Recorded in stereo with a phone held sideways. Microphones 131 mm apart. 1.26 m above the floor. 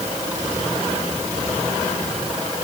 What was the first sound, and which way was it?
Only background noise.